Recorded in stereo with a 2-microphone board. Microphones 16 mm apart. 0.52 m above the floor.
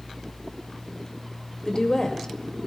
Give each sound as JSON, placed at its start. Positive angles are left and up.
{"t": 1.6, "sound": "a woman speaking", "side_deg": 45, "distance_m": 2.0}